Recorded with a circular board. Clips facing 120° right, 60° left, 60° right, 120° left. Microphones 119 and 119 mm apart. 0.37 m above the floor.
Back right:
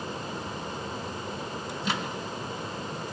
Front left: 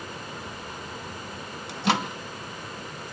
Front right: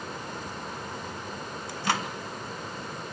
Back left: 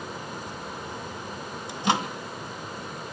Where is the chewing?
No chewing in this recording.